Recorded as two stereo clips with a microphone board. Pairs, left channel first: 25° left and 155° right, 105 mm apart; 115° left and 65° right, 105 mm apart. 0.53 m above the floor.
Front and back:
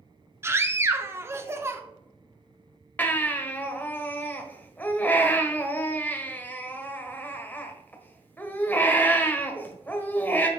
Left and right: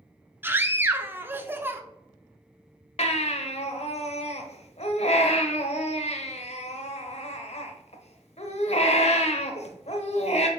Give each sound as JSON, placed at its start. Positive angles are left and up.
{"t": 0.4, "sound": "a scream", "azimuth_deg": -120, "distance_m": 0.8}
{"t": 3.0, "sound": "a baby crying", "azimuth_deg": 95, "distance_m": 0.9}